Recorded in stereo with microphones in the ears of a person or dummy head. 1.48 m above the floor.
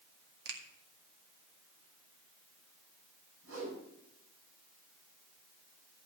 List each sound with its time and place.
0.5 s a finger snap: 65° right (ahead or behind), 1.9 m
3.4 s a whoosh: 80° right, 6.5 m